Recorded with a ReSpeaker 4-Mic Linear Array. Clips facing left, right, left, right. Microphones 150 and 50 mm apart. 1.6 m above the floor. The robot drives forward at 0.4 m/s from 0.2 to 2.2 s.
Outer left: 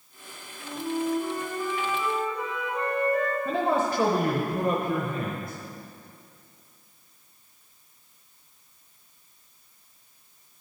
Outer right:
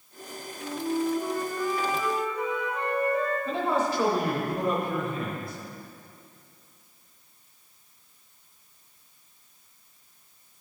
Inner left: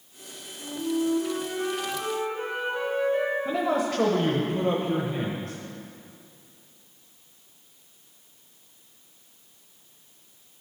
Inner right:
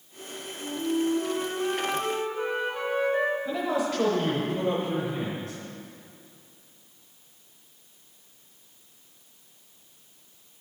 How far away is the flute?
About 2 m.